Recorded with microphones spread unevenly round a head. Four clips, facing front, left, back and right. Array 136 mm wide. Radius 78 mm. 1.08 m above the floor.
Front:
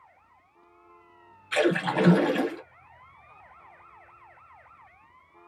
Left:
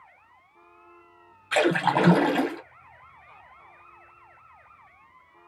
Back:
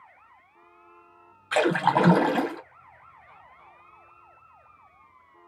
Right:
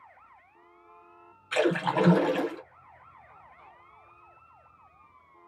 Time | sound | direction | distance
1.5 | a splash | 150° left | 1.8 m